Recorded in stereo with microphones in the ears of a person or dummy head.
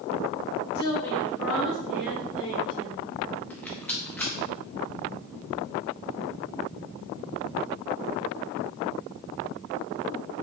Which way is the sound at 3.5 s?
10° left (ahead or behind).